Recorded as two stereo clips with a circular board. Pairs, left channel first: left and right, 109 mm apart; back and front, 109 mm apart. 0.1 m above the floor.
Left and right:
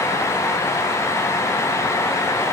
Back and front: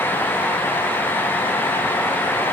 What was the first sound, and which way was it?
Only background noise.